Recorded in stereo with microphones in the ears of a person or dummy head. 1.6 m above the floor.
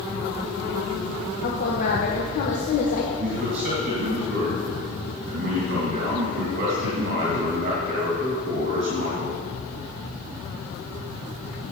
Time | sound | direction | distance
1.4 | a woman speaking | 55° left (ahead or behind) | 1.3 m
3.1 | a man speaking | 35° right (ahead or behind) | 2.5 m